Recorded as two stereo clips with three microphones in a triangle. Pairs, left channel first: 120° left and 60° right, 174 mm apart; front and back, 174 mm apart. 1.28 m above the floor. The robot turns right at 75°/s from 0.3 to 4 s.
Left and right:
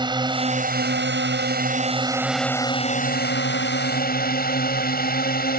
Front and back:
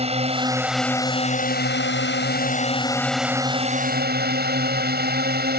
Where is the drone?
125° right; by 5.6 s 155° left.